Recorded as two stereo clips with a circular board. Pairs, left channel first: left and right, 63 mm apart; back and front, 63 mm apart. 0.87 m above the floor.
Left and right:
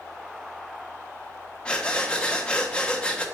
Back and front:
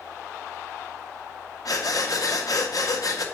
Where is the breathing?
165° left, 0.7 m.